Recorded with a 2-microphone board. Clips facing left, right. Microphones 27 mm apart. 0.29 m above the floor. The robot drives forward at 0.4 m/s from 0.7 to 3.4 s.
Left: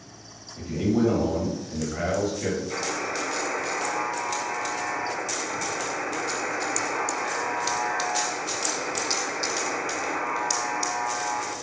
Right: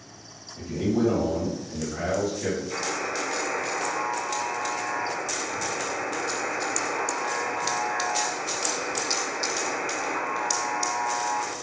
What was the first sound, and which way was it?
A man speaking, 35° left (ahead or behind).